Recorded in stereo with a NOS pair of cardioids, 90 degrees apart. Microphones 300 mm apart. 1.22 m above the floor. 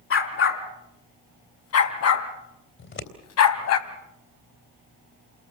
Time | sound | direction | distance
0.1 | a dog barking | 50° left | 3.5 m
2.8 | scissors | 45° left | 3.5 m